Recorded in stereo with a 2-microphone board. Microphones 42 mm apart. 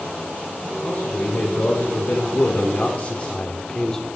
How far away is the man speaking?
About 2.5 m.